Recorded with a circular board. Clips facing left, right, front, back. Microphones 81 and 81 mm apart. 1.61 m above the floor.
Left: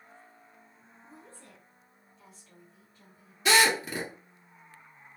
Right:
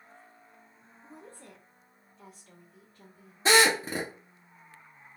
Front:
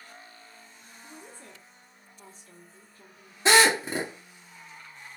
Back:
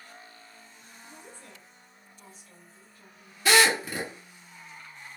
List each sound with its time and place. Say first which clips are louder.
1.0 s a woman speaking: right 3 dB, front 2 dB; 50° right, 1.8 m
3.5 s a drill: right 1 dB, front 2 dB; 50° right, 1.3 m